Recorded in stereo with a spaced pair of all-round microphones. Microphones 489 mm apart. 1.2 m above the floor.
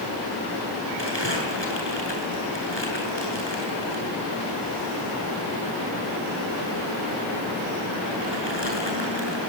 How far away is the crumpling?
About 8 m.